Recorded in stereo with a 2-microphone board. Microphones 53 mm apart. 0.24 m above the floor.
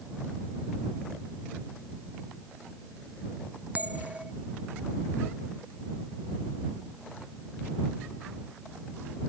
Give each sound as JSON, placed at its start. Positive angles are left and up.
{"t": 3.7, "sound": "a bell", "side_deg": -30}